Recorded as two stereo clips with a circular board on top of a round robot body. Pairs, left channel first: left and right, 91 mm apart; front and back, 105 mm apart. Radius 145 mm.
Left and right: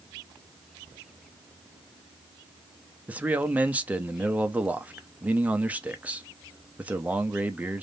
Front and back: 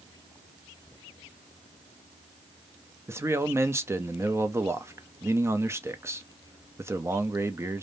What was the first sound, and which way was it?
A man speaking, 145° right.